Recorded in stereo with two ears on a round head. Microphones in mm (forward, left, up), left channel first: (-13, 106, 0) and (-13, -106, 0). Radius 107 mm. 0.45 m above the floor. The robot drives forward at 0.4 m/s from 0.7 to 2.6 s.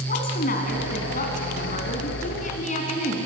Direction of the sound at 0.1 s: 40° left (ahead or behind).